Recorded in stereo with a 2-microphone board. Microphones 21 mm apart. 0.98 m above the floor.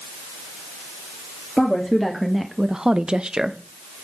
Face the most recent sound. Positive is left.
turn(degrees=-40)  # may be behind; listen again after turning